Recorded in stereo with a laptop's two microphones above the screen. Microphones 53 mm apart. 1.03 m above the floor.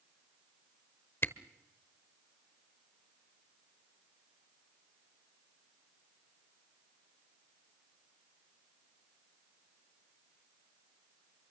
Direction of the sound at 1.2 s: 50° left (ahead or behind).